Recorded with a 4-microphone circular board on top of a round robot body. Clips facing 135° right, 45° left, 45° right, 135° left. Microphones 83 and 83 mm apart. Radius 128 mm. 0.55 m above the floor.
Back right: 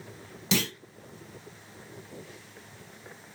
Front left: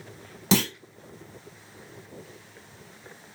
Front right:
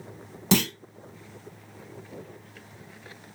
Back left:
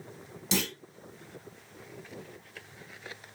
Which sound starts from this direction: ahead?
A clunk, at 0.5 s.